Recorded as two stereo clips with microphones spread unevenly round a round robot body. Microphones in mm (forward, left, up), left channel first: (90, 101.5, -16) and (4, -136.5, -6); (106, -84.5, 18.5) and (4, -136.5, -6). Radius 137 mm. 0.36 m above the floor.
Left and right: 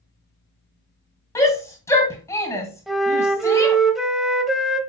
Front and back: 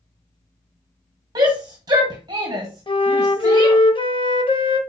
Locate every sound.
1.4 s a shout: 150° left, 1.8 m
2.9 s a flute: 20° right, 1.1 m